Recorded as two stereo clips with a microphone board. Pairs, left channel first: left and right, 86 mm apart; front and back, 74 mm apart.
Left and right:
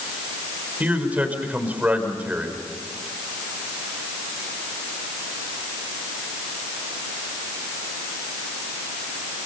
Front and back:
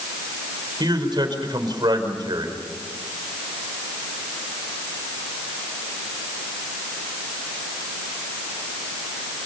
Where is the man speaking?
165° right, 4.5 m.